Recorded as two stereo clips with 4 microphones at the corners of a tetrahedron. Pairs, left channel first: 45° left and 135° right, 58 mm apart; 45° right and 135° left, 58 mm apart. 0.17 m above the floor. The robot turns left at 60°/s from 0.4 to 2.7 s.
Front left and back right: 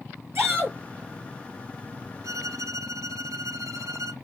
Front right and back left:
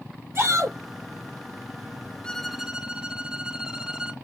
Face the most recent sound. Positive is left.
turn(degrees=-145)